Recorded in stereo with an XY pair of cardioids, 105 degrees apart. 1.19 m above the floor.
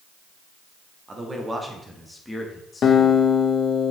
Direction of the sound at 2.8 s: 55° left.